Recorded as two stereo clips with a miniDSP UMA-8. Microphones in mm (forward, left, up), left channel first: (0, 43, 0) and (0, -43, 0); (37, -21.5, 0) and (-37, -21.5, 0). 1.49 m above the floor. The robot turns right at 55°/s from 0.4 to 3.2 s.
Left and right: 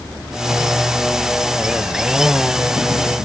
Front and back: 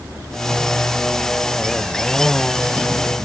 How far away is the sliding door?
I don't hear a sliding door.